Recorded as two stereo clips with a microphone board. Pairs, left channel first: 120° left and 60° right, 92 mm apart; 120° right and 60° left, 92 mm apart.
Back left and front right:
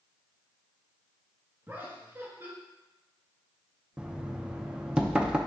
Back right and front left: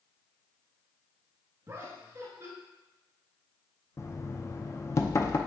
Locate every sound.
1.7 s laughter: 5° left, 1.9 m
4.0 s knocking: 130° right, 0.6 m